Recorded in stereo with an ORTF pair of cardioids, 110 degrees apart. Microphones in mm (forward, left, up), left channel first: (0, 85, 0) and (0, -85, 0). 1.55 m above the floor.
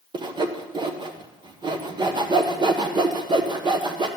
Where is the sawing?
25° right, 1.4 m.